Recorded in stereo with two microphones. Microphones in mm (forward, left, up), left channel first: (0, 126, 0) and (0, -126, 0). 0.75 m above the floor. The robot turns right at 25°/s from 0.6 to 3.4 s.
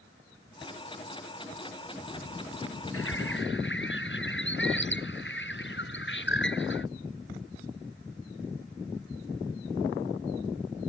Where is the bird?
60° left (ahead or behind); by 6.9 s 50° left (ahead or behind).